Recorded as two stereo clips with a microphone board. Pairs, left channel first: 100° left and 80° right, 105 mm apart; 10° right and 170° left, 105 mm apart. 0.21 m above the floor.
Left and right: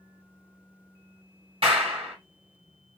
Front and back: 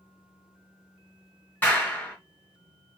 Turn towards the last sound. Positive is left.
turn(degrees=-85)